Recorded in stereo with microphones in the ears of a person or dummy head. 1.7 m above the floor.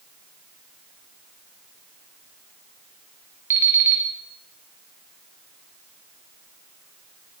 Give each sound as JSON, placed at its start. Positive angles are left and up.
{"t": 3.5, "sound": "an alarm clock", "side_deg": -10, "distance_m": 1.0}